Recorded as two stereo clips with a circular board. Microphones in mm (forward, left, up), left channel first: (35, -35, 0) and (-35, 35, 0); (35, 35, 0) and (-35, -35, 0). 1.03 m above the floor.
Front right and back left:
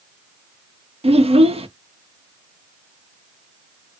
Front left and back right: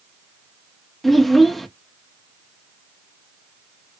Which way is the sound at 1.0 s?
135° left.